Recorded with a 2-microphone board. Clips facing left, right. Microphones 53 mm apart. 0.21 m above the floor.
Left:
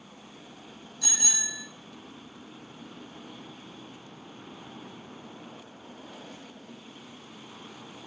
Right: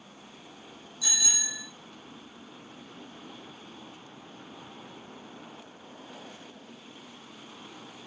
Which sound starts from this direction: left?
A bicycle bell, at 1.0 s.